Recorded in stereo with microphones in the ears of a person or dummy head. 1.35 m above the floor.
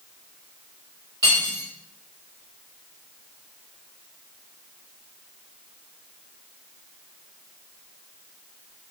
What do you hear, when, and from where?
1.2 s cutlery clinking: 15° right (ahead or behind), 0.9 m